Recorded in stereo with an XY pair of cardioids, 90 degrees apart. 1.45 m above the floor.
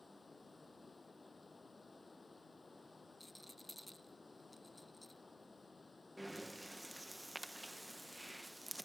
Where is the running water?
30° left.